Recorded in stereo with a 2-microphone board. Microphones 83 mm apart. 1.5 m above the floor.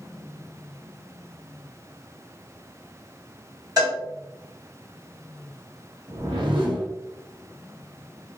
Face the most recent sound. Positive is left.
turn(degrees=-80)